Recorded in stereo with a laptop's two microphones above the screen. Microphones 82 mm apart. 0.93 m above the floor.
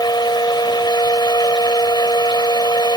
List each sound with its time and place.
0.0 s a fan: 60° left (ahead or behind)